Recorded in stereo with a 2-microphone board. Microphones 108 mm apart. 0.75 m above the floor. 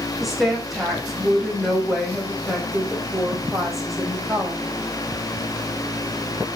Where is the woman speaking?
Centre (ahead or behind), 4 m.